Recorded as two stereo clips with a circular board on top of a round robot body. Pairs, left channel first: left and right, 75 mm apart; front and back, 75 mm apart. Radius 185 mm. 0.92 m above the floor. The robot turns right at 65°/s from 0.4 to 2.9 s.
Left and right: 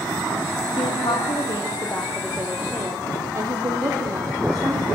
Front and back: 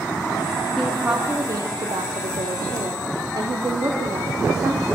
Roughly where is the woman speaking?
Left.